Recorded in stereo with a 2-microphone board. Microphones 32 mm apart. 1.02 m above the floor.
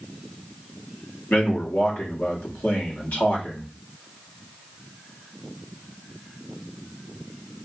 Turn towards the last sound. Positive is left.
turn(degrees=60)  # may be behind; listen again after turning